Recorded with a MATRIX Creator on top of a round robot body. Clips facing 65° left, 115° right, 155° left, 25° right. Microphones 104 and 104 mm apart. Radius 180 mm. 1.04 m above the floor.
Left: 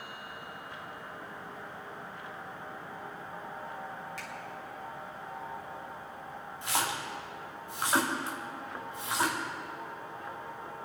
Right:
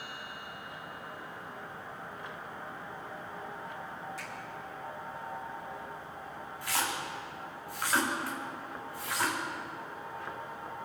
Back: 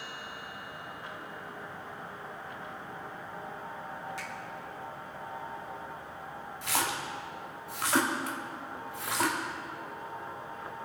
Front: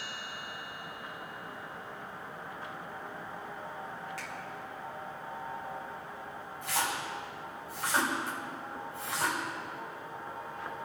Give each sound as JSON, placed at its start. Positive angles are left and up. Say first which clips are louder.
{"t": 4.2, "sound": "a finger snap", "louder": "even, back 2 dB", "azimuth_deg": 90, "distance_m": 3.5}
{"t": 6.6, "sound": "a splash", "louder": "left 1 dB, back 1 dB", "azimuth_deg": 135, "distance_m": 1.8}